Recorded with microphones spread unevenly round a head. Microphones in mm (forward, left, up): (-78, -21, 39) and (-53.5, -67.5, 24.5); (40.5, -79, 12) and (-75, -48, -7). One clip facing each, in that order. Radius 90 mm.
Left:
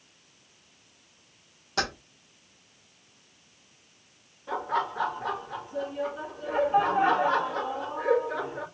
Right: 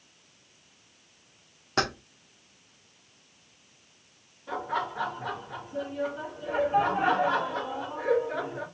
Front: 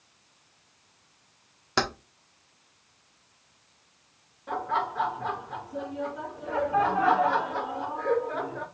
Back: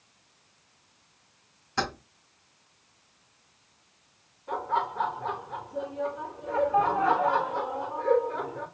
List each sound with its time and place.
1.8 s keys jangling: 5° left, 1.1 m
4.5 s laughter: 25° left, 1.8 m